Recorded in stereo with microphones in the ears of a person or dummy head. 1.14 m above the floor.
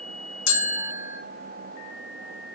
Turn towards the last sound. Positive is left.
turn(degrees=65)  # may be behind; listen again after turning